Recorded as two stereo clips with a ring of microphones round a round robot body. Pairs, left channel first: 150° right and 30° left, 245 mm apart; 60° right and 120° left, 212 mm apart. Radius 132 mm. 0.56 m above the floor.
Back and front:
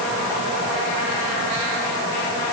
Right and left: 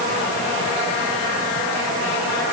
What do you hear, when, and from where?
Only background noise.